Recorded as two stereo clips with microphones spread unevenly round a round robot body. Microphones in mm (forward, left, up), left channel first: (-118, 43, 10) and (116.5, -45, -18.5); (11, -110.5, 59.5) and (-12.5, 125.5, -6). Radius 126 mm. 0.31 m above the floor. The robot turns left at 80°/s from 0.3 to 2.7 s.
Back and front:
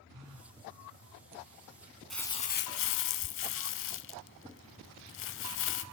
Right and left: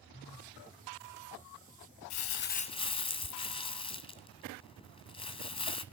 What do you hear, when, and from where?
0.1 s a phone buzzing: 30° right, 3.5 m; by 0.6 s 55° right, 3.5 m
2.1 s crumpling: 110° right, 0.8 m; by 5.8 s 155° right, 0.8 m